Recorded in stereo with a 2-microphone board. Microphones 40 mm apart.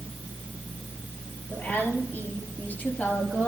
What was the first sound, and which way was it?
A woman speaking, 50° left (ahead or behind).